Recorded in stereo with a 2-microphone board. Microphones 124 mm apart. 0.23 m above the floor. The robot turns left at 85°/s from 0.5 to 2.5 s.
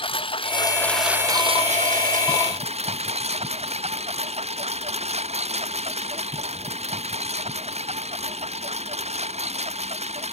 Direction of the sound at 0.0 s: 40° left (ahead or behind).